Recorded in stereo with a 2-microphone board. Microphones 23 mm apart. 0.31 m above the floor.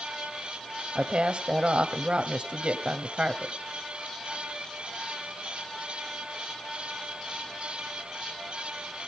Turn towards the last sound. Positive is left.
turn(degrees=-50)  # may be behind; listen again after turning